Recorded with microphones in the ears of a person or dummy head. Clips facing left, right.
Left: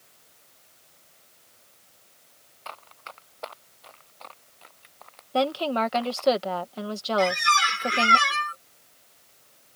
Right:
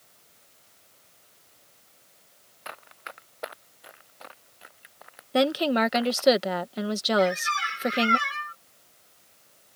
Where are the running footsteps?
20° right (ahead or behind); by 6.3 s 10° right (ahead or behind).